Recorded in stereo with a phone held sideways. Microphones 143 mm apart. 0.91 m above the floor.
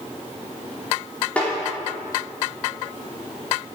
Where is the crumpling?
No crumpling in this recording.